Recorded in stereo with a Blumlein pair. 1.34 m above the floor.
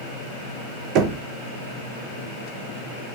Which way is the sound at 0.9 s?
40° right.